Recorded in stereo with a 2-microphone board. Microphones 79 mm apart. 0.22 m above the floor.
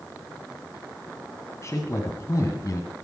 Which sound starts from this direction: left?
A man speaking, at 1.6 s.